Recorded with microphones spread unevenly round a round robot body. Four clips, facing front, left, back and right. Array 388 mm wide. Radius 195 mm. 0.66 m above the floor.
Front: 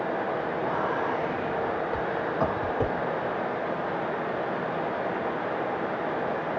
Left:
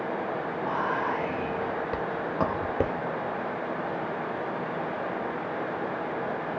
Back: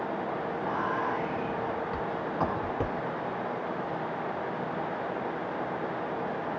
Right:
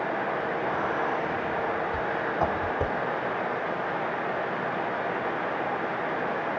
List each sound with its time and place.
0.7 s whispering: 105° left, 1.1 m